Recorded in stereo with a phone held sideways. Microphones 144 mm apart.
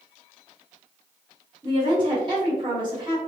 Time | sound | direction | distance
1.6 | a woman speaking | 35° right (ahead or behind) | 1.5 m